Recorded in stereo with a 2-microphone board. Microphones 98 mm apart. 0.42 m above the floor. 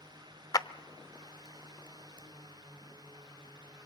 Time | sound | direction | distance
0.5 | a clap | 40° left (ahead or behind) | 0.7 m